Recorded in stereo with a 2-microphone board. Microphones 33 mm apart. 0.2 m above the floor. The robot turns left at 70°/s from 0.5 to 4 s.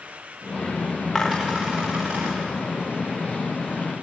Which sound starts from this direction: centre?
A dropped coin, at 1.1 s.